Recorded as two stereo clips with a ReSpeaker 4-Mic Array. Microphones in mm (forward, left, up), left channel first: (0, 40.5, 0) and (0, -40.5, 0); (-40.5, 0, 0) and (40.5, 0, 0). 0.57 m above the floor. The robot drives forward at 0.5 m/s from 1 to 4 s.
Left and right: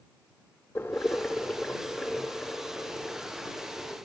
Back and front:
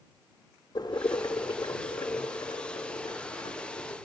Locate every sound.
0.8 s boiling: 150° left, 0.6 m; by 4.0 s 170° left, 2.0 m